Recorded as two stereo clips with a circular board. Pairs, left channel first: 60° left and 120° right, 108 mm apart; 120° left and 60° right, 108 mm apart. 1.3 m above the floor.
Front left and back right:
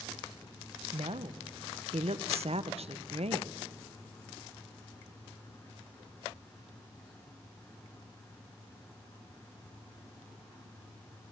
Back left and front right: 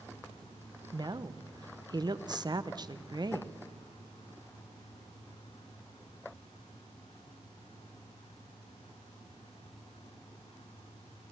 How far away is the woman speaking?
About 0.9 m.